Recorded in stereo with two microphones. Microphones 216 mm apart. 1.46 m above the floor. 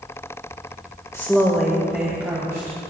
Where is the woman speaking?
15° left (ahead or behind), 0.8 m; by 2.8 s 15° right (ahead or behind), 2 m.